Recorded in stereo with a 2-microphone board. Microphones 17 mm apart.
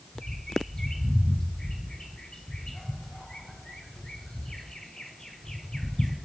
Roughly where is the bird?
Left.